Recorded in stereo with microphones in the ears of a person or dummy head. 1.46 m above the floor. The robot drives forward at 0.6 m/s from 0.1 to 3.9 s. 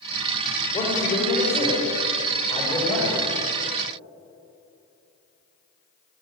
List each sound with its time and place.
0.7 s a man speaking: 25° left (ahead or behind), 4.5 m; by 3.2 s 20° left (ahead or behind), 6 m